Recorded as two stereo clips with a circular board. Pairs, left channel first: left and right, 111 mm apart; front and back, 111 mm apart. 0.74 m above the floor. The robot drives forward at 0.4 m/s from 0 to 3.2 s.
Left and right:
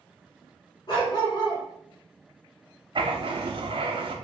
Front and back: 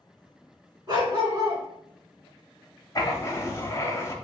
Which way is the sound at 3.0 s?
55° right.